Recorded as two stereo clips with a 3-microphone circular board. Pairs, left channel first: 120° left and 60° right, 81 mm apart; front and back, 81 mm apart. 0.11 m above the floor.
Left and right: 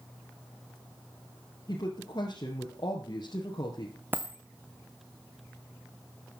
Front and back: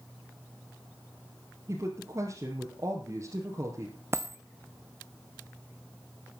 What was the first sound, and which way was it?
A woman speaking, 140° left.